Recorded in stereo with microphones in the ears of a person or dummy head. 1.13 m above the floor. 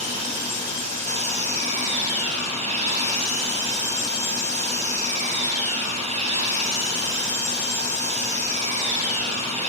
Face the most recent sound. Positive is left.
turn(degrees=-35)  # may be behind; listen again after turning